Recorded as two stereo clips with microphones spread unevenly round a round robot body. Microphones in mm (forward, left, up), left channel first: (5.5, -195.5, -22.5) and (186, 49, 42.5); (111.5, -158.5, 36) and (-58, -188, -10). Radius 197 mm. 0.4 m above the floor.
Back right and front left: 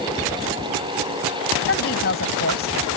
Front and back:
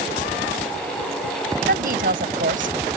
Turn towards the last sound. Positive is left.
turn(degrees=180)